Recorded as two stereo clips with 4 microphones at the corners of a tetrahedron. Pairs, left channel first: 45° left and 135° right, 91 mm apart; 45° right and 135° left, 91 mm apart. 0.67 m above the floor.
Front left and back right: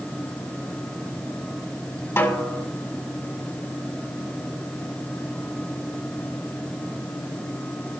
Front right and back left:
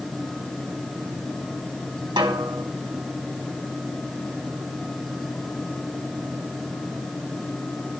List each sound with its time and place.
2.2 s a snare drum: 110° left, 2.5 m